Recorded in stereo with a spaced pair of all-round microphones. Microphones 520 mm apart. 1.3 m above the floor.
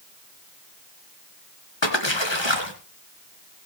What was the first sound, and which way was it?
A splash, 55° left (ahead or behind).